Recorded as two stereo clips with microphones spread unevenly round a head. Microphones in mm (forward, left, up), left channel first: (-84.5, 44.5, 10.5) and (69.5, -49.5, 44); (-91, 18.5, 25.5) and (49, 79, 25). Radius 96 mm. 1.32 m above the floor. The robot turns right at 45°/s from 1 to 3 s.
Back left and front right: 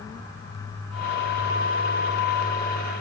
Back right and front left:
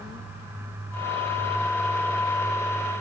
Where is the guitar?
I don't hear a guitar.